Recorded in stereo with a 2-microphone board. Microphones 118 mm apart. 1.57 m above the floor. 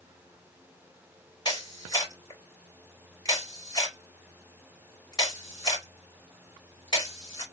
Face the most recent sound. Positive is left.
turn(degrees=40)  # may be behind; listen again after turning